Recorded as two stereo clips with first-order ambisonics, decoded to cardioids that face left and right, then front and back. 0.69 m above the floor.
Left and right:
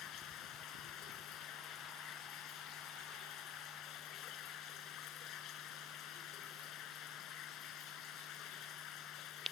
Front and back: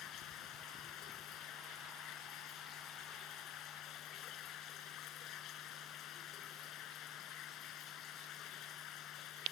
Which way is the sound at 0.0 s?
45° left.